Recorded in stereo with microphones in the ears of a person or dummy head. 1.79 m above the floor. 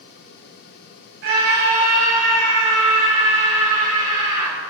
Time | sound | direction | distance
1.2 | a scream | 65° right (ahead or behind) | 3 m